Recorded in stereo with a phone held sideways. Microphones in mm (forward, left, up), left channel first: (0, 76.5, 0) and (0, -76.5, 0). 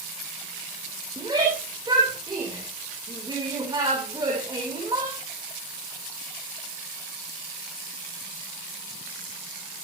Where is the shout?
30° right (ahead or behind), 4 m.